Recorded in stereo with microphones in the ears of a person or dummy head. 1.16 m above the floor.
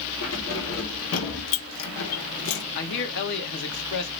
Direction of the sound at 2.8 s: 60° left (ahead or behind).